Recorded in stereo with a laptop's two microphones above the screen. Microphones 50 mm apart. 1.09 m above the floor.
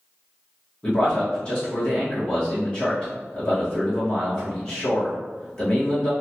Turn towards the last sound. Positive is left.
turn(degrees=15)  # may be behind; listen again after turning